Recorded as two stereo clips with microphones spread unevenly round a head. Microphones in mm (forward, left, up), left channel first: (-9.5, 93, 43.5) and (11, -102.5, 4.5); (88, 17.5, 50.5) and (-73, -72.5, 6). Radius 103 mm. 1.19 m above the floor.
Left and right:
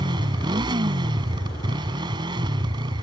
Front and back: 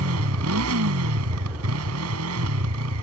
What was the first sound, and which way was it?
A motorcycle, 155° right.